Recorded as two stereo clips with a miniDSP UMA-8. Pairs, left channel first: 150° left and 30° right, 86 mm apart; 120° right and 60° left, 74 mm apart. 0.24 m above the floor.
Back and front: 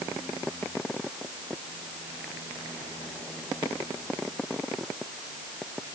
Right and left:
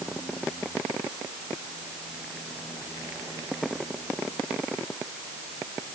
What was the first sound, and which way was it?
Only background noise.